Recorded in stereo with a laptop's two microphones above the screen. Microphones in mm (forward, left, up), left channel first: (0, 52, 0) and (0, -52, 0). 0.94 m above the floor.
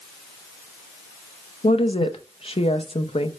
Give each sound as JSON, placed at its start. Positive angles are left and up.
{"t": 1.6, "sound": "a woman speaking", "side_deg": 65, "distance_m": 0.6}